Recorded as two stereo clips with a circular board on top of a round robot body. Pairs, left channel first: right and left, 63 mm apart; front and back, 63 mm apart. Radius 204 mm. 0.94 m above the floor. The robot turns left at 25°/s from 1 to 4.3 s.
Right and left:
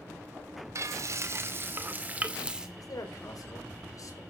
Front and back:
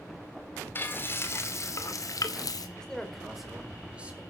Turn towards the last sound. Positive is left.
turn(degrees=-115)